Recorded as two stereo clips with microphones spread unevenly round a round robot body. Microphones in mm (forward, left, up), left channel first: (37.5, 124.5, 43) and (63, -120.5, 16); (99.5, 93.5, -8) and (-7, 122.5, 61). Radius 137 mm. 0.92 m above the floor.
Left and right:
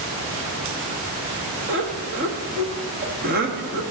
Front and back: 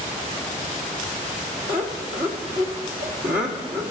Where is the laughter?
135° right, 1.4 m.